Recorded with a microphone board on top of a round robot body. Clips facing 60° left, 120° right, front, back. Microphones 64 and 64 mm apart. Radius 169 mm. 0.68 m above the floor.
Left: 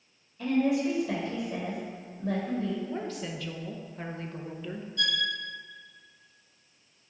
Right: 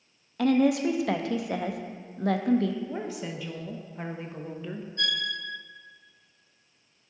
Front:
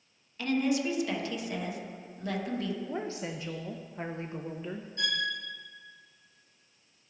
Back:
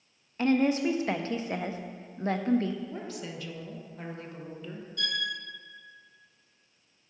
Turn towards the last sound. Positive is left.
turn(degrees=-60)